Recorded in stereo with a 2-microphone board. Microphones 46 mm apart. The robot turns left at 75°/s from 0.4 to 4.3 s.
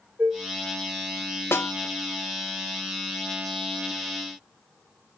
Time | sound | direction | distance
0.2 | dishes clattering | 60° right (ahead or behind) | 3.5 m
1.5 | a snare drum | 60° left (ahead or behind) | 0.8 m